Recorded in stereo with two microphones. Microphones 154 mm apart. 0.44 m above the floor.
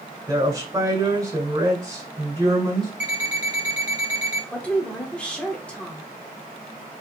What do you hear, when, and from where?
0.3 s a woman speaking: 25° right (ahead or behind), 1.8 m
3.0 s an alarm clock: 55° left (ahead or behind), 1.3 m
4.5 s a woman speaking: 10° left (ahead or behind), 0.8 m